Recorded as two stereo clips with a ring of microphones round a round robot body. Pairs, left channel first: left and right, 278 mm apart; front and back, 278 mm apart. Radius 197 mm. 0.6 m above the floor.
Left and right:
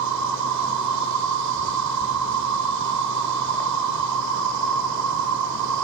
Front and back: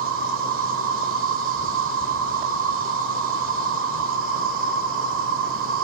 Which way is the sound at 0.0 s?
125° right.